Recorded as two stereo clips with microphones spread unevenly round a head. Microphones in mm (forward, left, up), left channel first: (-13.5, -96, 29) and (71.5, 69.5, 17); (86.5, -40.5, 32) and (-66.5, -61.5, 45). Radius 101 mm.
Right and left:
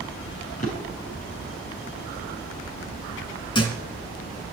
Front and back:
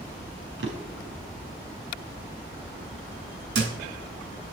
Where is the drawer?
175° right, 5 m.